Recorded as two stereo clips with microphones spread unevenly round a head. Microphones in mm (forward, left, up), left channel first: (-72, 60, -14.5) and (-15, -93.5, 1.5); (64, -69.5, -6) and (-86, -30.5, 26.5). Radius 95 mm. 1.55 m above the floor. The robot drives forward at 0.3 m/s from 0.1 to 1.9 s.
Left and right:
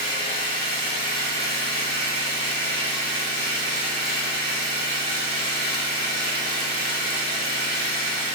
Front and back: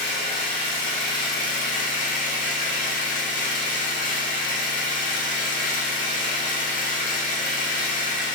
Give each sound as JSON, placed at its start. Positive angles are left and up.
{"t": 0.0, "sound": "an engine running", "azimuth_deg": -35, "distance_m": 1.6}